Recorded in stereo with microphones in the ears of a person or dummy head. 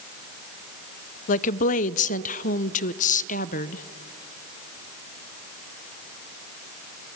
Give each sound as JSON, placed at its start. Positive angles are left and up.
{"t": 1.3, "sound": "a woman speaking", "side_deg": 40, "distance_m": 0.5}